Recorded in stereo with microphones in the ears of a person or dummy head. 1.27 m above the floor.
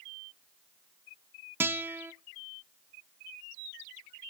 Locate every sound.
1.6 s a guitar: 10° right (ahead or behind), 0.5 m